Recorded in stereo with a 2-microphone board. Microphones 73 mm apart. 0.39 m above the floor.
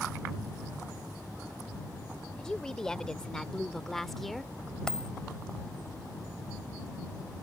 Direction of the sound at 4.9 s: 10° left (ahead or behind).